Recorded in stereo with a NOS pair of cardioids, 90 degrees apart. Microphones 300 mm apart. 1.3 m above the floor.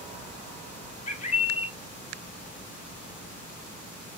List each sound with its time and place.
1.1 s a bird: 20° left, 1.0 m